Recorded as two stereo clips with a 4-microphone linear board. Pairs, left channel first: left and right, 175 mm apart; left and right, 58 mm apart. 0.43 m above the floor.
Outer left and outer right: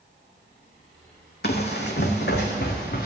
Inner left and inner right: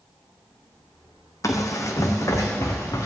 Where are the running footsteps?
70° left (ahead or behind), 1.3 m.